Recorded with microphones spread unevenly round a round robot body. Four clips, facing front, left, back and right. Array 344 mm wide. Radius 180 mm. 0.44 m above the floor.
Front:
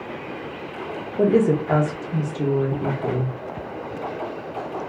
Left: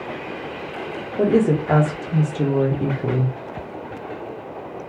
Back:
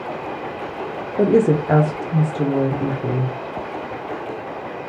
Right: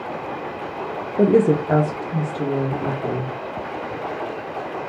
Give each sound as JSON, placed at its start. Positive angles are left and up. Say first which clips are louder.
{"t": 1.2, "sound": "a woman speaking", "louder": "right 2 dB, back 2 dB", "azimuth_deg": -125, "distance_m": 0.9}